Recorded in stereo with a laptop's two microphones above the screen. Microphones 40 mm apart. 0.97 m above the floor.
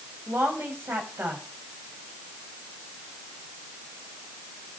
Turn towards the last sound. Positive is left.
turn(degrees=-65)  # may be behind; listen again after turning